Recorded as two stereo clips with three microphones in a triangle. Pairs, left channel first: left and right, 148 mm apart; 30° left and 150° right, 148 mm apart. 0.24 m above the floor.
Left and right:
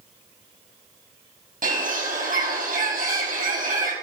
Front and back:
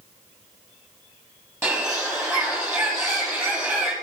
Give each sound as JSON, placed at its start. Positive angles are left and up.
{"t": 1.6, "sound": "a bird", "azimuth_deg": -75, "distance_m": 6.0}